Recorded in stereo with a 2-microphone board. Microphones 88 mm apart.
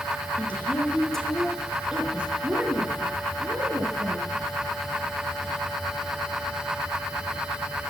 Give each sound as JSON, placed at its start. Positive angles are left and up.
{"t": 0.4, "sound": "a woman speaking", "side_deg": 20, "distance_m": 4.0}